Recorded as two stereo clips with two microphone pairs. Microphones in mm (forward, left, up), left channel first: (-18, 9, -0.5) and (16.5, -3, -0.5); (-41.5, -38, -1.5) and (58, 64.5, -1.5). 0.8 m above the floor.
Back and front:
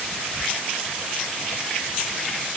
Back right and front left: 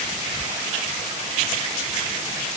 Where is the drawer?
I don't hear a drawer.